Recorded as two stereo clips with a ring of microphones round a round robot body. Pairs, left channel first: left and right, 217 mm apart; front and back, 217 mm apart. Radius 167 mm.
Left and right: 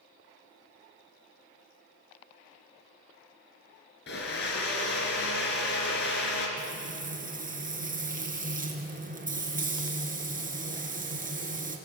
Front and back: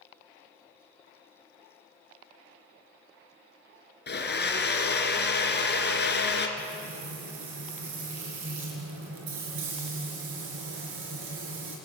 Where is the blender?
40° left, 3 m.